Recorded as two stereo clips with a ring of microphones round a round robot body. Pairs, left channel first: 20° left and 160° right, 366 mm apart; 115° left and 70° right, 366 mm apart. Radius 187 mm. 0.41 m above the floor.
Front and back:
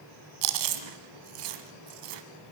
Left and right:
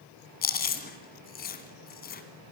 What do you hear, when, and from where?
0.4 s chewing: straight behind, 1.7 m